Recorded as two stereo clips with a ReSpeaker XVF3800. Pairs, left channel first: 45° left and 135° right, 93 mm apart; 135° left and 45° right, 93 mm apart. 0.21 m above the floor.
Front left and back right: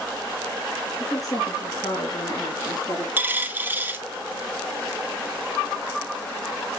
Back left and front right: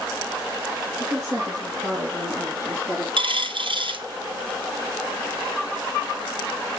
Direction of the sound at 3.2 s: 65° right.